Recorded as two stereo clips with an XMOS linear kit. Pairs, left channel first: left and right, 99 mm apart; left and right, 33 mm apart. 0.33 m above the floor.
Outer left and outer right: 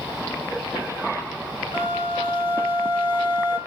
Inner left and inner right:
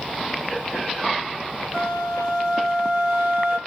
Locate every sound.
1.7 s a flute: 20° right (ahead or behind), 1.6 m